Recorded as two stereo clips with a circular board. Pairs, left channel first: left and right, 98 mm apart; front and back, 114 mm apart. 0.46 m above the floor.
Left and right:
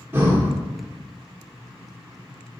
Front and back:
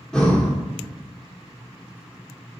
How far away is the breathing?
About 1.4 m.